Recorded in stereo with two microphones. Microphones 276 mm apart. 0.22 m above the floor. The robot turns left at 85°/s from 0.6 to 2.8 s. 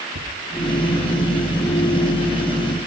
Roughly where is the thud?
Right.